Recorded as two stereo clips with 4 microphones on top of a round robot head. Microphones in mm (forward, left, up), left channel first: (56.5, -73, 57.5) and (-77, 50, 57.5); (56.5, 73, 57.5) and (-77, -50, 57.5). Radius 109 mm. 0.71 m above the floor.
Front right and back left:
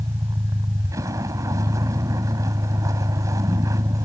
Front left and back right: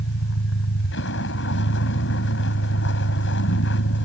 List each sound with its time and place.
0.0 s a vehicle: 65° left